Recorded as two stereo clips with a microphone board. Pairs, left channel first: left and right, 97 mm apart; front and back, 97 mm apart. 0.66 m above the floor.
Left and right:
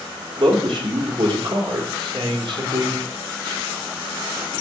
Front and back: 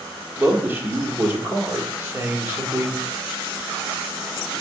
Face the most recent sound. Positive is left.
turn(degrees=-115)